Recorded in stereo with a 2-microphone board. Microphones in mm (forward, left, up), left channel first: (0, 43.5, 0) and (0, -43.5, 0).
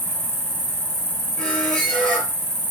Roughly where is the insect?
Left.